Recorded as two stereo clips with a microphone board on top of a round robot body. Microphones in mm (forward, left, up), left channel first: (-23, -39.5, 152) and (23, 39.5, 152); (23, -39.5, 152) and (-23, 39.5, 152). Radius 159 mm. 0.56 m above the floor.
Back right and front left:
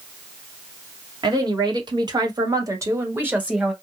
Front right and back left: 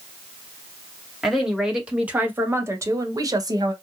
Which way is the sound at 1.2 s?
35° left.